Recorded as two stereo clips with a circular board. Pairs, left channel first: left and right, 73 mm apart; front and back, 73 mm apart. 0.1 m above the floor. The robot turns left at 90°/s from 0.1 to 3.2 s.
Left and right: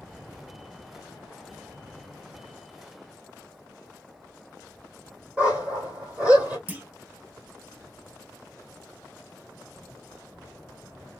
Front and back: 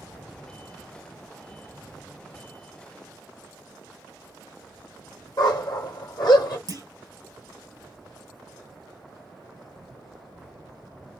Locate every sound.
5.4 s a dog barking: 20° right, 1.5 m
6.7 s a clunk: 155° right, 0.8 m